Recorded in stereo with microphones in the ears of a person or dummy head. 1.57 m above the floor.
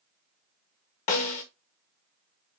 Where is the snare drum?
35° left (ahead or behind), 0.8 m.